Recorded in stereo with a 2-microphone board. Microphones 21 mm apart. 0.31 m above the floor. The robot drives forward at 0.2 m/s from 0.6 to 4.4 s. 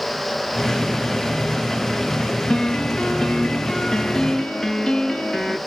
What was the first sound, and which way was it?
A piano, 50° left (ahead or behind).